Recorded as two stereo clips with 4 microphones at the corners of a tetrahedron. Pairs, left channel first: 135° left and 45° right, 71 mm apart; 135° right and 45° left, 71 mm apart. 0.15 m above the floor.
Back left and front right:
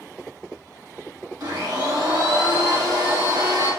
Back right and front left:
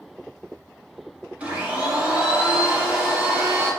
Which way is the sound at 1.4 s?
25° right.